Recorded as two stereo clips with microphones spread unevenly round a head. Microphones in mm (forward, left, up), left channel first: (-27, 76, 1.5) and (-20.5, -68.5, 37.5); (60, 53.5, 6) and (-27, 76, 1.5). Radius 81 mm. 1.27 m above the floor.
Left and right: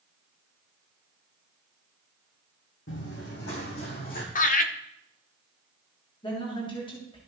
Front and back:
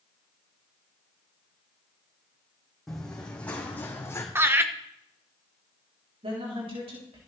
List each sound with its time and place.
2.9 s running footsteps: 70° left, 4.5 m; by 4.2 s 45° left, 4 m
4.3 s laughter: 105° left, 1.5 m
6.2 s a woman speaking: 150° left, 3.5 m